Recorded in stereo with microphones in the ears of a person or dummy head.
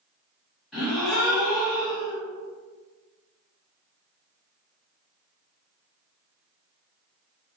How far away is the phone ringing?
No phone ringing in this recording.